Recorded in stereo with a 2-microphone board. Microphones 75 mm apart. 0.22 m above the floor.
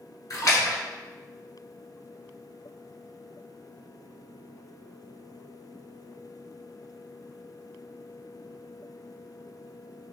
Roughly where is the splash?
Left.